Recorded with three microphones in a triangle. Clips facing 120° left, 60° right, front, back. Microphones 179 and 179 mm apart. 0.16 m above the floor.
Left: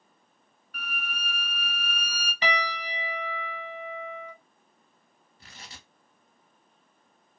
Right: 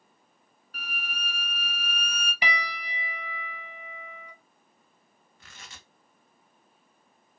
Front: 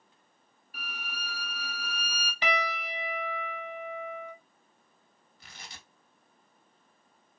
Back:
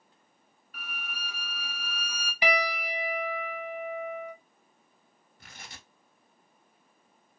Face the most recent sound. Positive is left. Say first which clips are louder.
# left 2 dB, back 1 dB
turn(degrees=165)